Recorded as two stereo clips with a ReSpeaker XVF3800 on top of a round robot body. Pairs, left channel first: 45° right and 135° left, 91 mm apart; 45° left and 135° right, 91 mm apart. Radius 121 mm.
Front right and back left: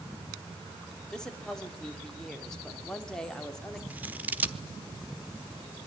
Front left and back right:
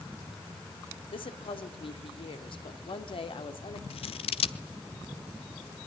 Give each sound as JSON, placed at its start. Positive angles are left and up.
{"t": 1.1, "sound": "a woman speaking", "azimuth_deg": 40, "distance_m": 2.5}
{"t": 3.9, "sound": "scissors", "azimuth_deg": 60, "distance_m": 0.9}